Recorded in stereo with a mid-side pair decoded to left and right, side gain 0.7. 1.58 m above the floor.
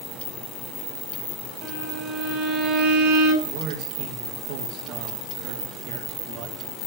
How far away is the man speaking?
About 2.5 m.